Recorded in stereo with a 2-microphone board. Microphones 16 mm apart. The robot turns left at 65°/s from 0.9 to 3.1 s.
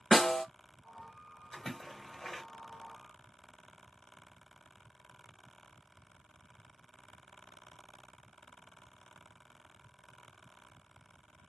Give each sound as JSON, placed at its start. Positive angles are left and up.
{"t": 0.1, "sound": "a snare drum", "side_deg": 40, "distance_m": 1.3}
{"t": 1.5, "sound": "a splash", "side_deg": 35, "distance_m": 1.8}